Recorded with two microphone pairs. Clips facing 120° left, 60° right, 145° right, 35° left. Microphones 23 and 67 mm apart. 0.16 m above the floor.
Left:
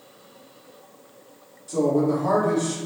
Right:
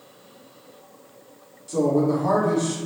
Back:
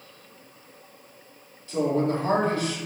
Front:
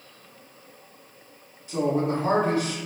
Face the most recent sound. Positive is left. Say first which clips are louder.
# even, even
turn(degrees=-10)